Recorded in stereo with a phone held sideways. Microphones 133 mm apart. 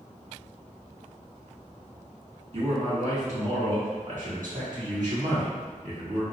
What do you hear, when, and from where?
2.5 s a man speaking: 50° right (ahead or behind), 1.5 m; by 6.2 s 60° right (ahead or behind), 2.5 m